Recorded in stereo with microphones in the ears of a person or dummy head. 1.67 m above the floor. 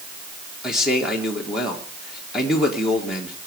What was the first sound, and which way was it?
A man speaking, 5° right (ahead or behind).